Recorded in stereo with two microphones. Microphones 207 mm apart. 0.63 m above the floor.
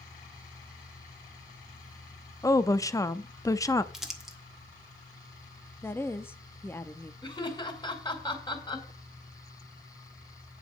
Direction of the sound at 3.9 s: Centre (ahead or behind).